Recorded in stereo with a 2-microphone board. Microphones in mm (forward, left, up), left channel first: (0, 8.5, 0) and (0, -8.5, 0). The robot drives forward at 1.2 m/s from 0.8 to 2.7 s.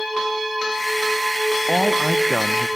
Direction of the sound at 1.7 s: 15° left (ahead or behind).